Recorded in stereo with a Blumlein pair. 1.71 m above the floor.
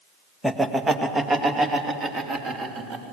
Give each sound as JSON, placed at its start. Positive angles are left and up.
{"t": 0.4, "sound": "laughter", "azimuth_deg": -5, "distance_m": 1.5}